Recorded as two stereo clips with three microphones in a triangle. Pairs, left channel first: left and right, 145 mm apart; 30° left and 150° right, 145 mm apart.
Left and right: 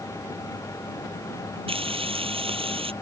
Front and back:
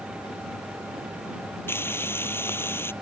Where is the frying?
45° right.